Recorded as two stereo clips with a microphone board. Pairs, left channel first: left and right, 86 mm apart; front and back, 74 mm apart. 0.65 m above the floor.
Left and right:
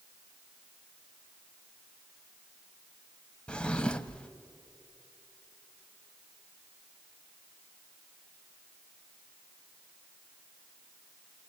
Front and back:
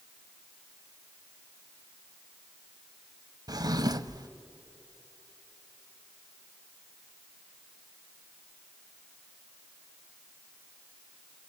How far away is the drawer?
About 0.8 m.